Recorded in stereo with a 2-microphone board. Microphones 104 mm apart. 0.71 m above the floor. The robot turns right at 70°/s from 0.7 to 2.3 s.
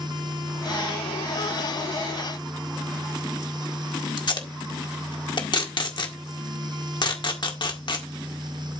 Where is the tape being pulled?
50° left (ahead or behind), 1.8 m.